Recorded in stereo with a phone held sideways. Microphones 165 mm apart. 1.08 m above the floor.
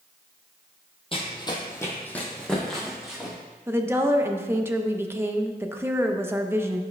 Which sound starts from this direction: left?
Running footsteps, at 1.1 s.